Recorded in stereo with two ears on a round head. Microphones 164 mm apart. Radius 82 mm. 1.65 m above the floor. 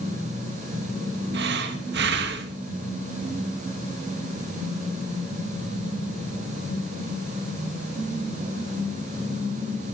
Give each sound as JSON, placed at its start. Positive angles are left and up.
{"t": 1.3, "sound": "breathing", "side_deg": -65, "distance_m": 1.9}